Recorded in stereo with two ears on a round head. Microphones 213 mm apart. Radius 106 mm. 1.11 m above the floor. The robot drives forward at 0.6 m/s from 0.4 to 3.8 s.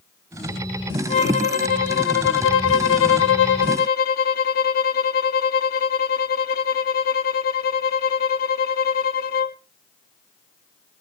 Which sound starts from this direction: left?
A violin, at 1.1 s.